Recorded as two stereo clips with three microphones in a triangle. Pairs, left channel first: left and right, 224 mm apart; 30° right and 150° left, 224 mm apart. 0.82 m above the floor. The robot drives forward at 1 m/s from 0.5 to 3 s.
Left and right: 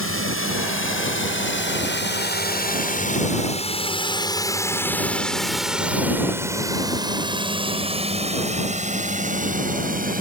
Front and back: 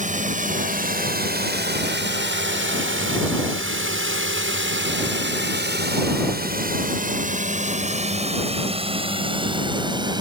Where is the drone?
95° left; by 10.2 s 140° right.